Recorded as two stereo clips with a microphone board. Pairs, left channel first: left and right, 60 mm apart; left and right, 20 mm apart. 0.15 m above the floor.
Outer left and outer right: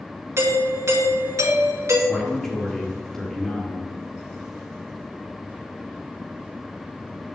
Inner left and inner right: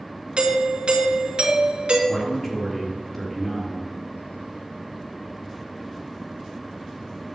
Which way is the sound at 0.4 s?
55° right (ahead or behind).